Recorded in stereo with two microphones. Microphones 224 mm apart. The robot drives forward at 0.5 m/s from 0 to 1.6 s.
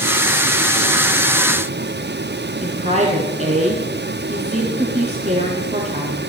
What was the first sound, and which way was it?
A woman speaking, 30° right (ahead or behind).